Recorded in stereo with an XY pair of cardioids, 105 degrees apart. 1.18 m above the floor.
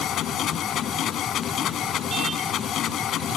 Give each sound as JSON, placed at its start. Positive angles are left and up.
{"t": 0.0, "sound": "a machine running", "azimuth_deg": 65}